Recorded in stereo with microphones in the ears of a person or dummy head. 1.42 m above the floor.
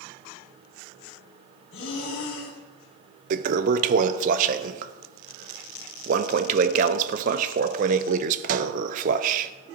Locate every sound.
1.7 s breathing: 70° left (ahead or behind), 3 m
3.3 s a toilet flushing: 40° right (ahead or behind), 0.5 m